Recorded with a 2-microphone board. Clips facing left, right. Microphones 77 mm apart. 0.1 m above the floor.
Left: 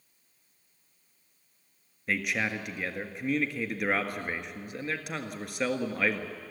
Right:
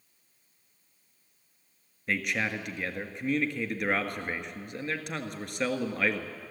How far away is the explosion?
I don't hear an explosion.